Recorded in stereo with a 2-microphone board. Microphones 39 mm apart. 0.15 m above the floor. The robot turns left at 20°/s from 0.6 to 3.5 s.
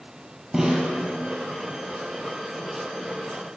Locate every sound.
0.5 s a snare drum: 20° right (ahead or behind), 2 m; by 0.9 s 25° right (ahead or behind), 2 m